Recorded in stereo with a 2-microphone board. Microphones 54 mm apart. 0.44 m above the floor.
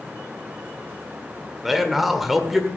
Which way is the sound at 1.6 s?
5° right (ahead or behind).